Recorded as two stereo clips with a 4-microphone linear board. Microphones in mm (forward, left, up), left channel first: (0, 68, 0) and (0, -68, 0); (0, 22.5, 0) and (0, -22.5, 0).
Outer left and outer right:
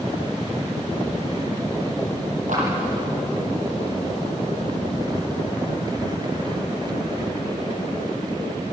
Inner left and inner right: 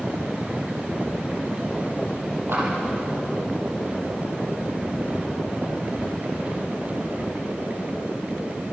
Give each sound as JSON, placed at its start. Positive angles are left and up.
{"t": 2.5, "sound": "a clap", "side_deg": -70, "distance_m": 8.5}